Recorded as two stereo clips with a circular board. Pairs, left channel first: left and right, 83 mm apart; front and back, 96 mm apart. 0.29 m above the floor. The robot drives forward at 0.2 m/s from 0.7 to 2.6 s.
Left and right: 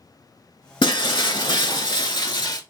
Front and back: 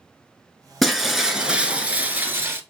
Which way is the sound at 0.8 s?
90° left.